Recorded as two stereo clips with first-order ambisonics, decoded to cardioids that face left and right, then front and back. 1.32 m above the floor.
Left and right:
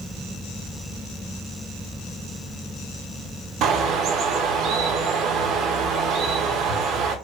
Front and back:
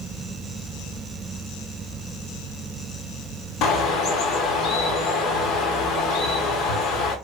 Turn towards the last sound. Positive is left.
turn(degrees=-45)